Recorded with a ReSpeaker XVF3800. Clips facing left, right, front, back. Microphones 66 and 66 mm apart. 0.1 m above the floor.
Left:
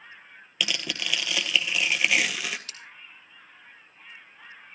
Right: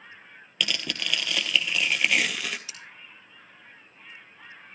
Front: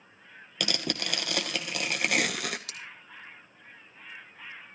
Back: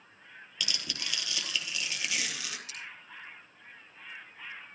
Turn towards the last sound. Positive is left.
turn(degrees=-10)